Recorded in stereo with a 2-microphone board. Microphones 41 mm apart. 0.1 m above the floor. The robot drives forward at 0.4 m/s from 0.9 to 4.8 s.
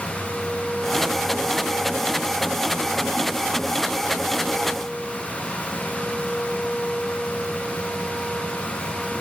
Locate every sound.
Only background noise.